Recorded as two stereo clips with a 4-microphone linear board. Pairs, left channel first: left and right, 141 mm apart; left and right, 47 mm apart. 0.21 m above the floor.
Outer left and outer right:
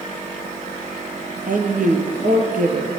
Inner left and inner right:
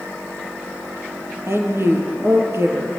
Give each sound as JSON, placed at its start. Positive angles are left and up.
{"t": 1.5, "sound": "a woman speaking", "side_deg": -75, "distance_m": 5.0}